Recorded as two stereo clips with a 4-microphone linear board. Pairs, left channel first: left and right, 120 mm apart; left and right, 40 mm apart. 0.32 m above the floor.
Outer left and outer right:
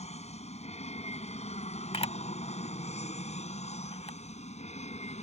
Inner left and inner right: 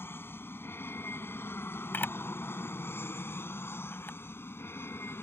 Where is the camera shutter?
55° left (ahead or behind).